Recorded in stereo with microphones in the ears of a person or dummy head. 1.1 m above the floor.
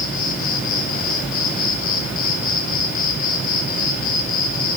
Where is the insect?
45° left (ahead or behind), 1.9 m.